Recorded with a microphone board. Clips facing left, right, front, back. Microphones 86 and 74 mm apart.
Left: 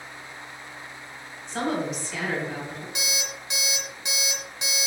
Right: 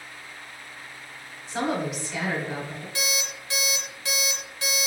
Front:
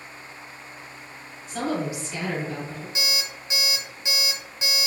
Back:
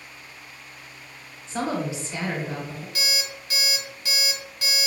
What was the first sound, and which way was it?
A woman speaking, 170° right.